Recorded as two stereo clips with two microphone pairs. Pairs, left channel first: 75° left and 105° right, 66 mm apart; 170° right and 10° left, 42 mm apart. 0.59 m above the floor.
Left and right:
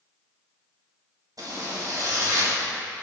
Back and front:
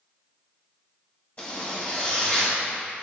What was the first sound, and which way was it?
A zipper, 115° right.